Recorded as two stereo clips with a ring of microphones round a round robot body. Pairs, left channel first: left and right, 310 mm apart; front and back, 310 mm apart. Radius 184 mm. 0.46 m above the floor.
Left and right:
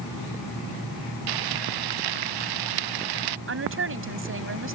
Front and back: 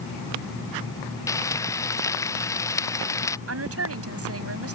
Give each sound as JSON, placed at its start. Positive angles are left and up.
{"t": 1.3, "sound": "frying", "azimuth_deg": -80}
{"t": 3.5, "sound": "a woman speaking", "azimuth_deg": -140}